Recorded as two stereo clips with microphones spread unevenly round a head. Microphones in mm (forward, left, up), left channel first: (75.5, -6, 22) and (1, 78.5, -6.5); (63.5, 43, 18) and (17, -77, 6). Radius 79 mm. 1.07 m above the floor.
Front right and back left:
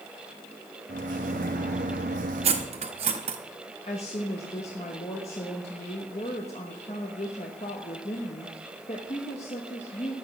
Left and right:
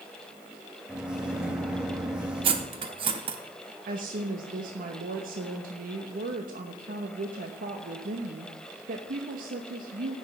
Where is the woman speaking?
105° right, 1.1 m.